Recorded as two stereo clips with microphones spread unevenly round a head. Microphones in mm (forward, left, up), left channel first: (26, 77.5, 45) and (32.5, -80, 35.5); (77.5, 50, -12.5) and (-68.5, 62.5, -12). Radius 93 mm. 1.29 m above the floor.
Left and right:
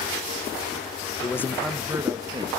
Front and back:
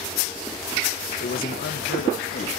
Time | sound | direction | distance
1.2 | a man speaking | 25° left | 1.2 m